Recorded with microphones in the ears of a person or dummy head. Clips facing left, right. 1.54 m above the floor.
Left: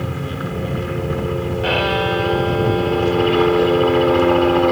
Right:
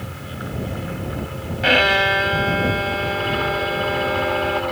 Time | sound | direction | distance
0.0 | a helicopter | 60° left (ahead or behind) | ?
1.6 | a violin | 30° right (ahead or behind) | ?